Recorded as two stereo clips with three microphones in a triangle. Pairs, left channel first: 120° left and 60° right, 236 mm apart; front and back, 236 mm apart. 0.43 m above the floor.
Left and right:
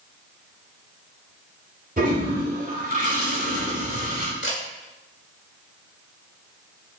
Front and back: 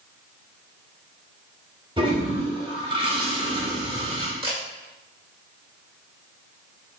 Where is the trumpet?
No trumpet in this recording.